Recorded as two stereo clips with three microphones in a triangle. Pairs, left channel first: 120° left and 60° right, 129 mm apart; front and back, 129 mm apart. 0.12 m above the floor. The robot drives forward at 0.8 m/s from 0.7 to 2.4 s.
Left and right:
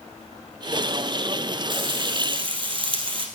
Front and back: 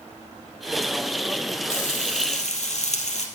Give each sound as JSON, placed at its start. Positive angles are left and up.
{"t": 1.7, "sound": "frying", "azimuth_deg": -10, "distance_m": 3.0}